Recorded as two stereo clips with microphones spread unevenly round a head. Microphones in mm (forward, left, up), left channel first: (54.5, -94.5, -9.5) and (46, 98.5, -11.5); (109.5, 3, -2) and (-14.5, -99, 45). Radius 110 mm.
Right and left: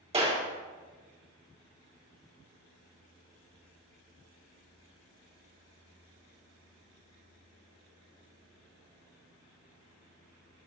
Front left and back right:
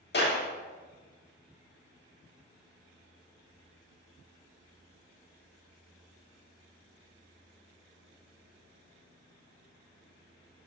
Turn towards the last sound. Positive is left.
turn(degrees=30)